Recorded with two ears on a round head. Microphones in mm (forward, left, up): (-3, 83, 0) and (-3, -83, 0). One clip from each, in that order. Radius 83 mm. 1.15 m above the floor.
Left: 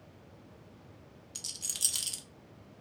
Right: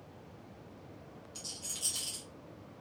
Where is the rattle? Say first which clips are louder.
Left 5 dB; 40° left (ahead or behind), 0.7 m.